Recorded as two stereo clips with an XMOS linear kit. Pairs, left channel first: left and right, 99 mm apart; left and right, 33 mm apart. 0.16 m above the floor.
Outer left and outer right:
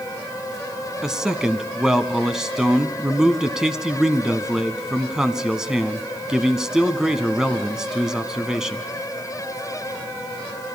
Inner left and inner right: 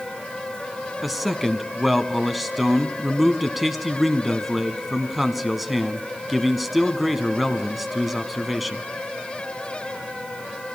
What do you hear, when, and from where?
1.0 s a man speaking: 5° right (ahead or behind), 1.2 m